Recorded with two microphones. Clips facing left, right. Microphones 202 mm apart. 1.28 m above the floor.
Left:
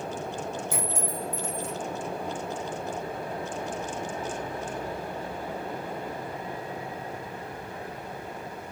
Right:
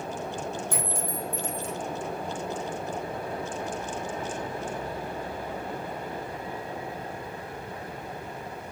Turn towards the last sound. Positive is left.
turn(degrees=5)  # may be behind; listen again after turning